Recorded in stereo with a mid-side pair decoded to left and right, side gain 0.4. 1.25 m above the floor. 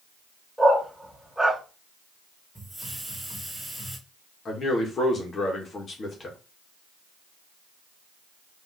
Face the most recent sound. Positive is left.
turn(degrees=45)